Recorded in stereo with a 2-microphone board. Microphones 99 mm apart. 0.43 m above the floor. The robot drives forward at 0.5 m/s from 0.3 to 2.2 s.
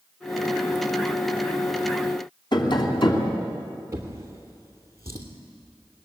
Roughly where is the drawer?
Right.